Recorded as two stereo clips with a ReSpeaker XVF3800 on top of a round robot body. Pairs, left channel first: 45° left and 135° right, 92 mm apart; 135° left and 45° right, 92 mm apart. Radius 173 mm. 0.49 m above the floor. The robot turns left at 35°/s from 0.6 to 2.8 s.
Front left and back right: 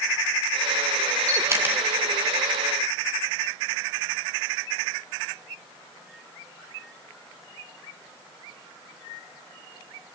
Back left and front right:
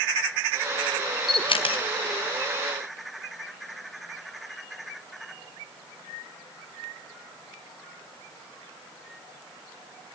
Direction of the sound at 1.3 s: 170° left.